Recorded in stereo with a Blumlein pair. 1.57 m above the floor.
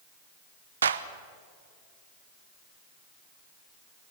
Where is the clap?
70° right, 1.0 m.